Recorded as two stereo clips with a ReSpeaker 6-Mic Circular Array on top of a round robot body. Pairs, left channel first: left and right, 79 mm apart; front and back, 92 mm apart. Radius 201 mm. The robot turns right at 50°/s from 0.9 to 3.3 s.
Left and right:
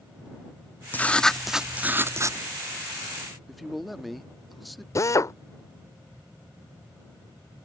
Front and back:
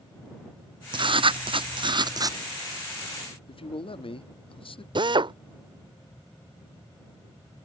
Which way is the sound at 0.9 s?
155° left.